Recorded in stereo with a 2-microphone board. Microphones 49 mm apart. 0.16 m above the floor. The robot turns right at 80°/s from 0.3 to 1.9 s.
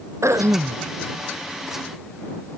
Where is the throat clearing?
90° right; by 0.8 s 50° right.